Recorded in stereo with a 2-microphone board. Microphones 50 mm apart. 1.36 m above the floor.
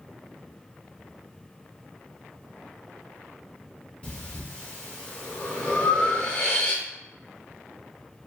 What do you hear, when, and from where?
4.0 s breathing: 20° left (ahead or behind), 0.5 m